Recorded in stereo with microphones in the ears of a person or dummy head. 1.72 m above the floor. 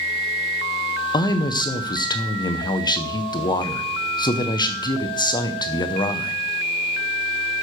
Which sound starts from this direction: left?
A man speaking, at 1.1 s.